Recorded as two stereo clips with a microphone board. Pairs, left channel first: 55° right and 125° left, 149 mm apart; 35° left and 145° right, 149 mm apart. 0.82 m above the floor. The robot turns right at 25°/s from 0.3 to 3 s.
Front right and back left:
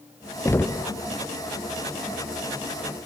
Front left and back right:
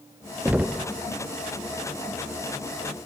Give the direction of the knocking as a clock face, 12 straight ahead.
3 o'clock.